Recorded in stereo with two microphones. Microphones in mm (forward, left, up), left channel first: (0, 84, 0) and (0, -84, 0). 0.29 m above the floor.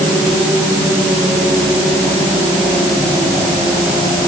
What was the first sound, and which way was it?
Only background noise.